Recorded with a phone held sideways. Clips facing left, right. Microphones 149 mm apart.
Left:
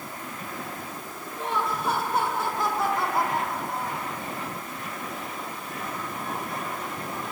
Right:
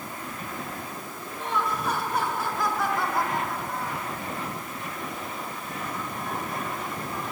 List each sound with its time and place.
1.4 s laughter: 30° left (ahead or behind), 7.5 m; by 4.1 s 20° left (ahead or behind), 6 m